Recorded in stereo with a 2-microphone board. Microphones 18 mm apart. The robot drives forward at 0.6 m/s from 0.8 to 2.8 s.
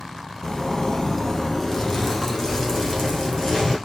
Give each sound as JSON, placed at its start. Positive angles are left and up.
{"t": 0.4, "sound": "a zipper", "side_deg": 35, "distance_m": 0.6}